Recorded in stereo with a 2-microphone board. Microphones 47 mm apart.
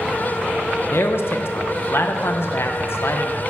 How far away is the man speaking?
About 0.6 m.